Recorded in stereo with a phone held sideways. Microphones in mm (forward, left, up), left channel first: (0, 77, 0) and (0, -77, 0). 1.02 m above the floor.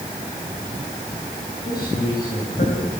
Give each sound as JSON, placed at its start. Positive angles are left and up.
{"t": 1.6, "sound": "a man speaking", "side_deg": 80, "distance_m": 7.0}